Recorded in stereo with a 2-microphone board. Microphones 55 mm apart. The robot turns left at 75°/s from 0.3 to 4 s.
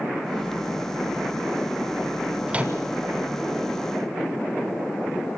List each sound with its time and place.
2.5 s a microwave: 20° right (ahead or behind), 1.2 m; by 2.8 s 35° right (ahead or behind), 1.2 m